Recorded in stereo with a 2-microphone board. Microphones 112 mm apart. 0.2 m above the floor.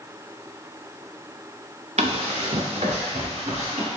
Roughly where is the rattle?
I don't hear a rattle.